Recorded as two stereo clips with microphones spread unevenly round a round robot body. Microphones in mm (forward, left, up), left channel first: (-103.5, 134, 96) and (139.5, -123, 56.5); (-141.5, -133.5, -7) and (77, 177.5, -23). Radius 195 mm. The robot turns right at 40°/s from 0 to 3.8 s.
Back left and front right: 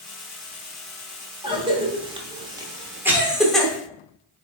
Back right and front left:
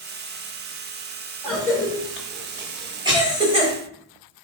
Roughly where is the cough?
Ahead right.